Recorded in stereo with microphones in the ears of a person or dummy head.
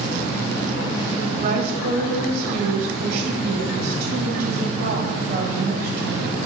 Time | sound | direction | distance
1.1 | a woman speaking | 55° right (ahead or behind) | 1.9 m